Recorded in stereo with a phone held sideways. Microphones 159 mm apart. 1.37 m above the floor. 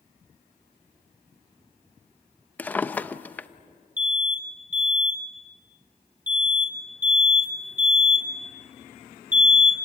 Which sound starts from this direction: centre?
A drawer, at 2.6 s.